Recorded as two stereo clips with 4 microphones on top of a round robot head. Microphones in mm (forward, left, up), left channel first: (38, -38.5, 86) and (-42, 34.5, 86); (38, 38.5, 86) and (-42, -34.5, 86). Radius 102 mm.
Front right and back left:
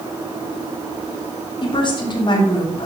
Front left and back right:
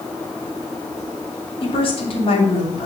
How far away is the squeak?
No squeak in this recording.